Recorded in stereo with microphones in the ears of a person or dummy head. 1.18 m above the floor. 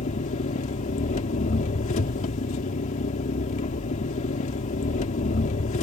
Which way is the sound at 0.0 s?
40° left (ahead or behind).